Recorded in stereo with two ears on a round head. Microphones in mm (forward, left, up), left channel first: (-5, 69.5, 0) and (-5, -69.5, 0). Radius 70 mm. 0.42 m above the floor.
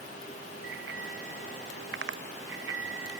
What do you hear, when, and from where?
0.6 s a bicycle bell: 85° right